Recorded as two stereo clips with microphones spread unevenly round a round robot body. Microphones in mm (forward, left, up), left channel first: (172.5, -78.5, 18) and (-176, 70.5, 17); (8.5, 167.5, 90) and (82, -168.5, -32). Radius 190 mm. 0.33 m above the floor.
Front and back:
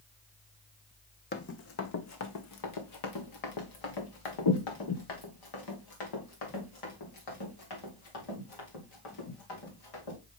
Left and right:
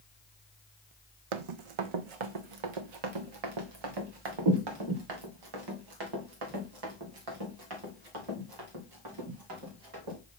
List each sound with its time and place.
1.3 s running footsteps: 85° right, 0.7 m; by 10.2 s 55° right, 5 m